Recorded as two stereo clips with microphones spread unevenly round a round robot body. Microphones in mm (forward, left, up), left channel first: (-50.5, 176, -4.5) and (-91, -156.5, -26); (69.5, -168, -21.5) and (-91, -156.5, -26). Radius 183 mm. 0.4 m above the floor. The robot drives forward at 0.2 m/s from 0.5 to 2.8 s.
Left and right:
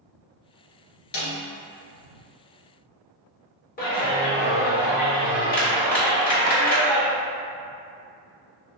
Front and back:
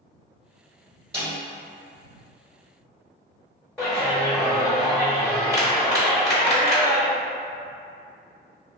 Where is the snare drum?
100° left, 1.9 m.